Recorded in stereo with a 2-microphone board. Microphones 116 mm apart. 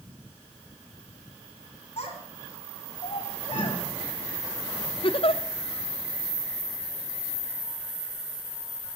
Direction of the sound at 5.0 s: 50° left (ahead or behind).